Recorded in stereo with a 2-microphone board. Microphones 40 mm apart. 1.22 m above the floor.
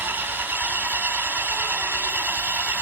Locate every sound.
0.0 s an engine running: 65° right (ahead or behind), 4 m